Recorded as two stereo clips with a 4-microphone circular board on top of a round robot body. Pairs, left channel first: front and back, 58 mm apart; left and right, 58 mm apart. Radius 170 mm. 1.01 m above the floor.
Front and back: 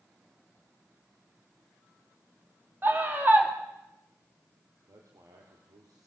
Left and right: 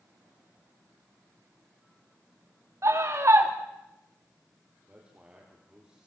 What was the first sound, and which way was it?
A scream, 125° right.